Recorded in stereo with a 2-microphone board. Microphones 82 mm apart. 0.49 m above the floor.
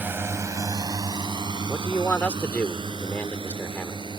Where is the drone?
25° right (ahead or behind); by 4.2 s 80° right.